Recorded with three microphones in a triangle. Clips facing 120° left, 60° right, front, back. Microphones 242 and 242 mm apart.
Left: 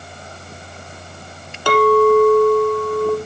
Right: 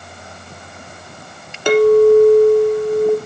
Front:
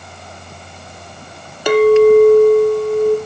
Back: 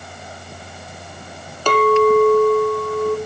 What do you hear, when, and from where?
1.7 s a clink: 50° right, 1.1 m